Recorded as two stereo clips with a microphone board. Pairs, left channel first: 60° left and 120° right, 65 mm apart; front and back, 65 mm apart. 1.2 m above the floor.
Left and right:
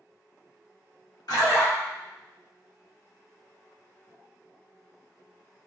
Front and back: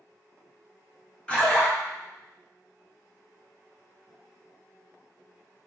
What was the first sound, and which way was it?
A splash, 75° left.